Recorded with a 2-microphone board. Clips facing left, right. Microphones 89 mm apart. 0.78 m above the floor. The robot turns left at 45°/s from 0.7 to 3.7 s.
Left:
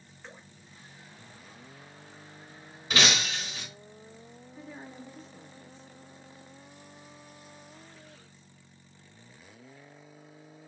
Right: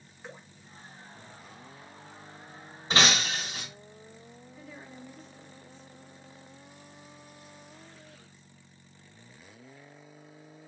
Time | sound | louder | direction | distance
0.2 | dripping | right 3 dB | 10° right (ahead or behind) | 0.8 m
2.9 | breaking glass | right 2 dB | 35° right | 1.0 m
4.6 | a woman speaking | left 3 dB | 40° left (ahead or behind) | 1.1 m